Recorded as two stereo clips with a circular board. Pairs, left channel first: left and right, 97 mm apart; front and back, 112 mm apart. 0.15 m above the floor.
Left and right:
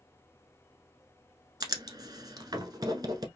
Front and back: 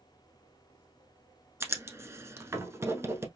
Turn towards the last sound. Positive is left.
turn(degrees=-120)